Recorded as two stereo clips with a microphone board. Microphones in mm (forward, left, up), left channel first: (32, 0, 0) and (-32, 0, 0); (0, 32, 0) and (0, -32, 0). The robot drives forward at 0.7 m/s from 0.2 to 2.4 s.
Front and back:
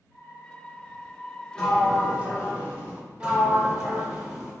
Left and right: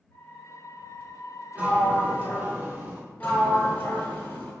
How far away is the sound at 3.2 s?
About 0.8 m.